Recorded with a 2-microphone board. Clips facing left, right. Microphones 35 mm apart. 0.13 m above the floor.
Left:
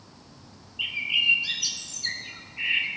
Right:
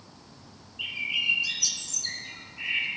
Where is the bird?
30° left (ahead or behind), 0.7 m.